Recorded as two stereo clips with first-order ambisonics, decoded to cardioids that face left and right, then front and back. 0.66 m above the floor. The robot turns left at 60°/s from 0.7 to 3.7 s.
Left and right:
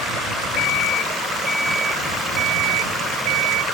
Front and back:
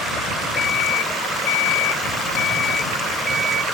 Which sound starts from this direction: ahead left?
An alarm clock, at 0.6 s.